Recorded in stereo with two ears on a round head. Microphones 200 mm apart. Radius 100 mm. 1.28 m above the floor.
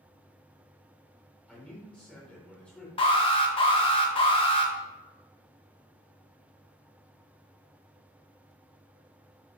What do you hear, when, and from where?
1.5 s a man speaking: 5° left (ahead or behind), 4 m
3.0 s an alarm: 25° left (ahead or behind), 1.4 m